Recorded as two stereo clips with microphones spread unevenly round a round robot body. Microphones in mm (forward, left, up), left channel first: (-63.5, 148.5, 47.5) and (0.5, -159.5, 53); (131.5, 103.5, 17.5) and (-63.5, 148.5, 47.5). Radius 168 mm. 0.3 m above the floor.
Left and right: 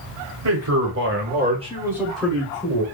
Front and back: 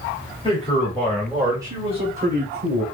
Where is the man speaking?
60° right, 1.8 m; by 2.9 s 165° left, 1.7 m.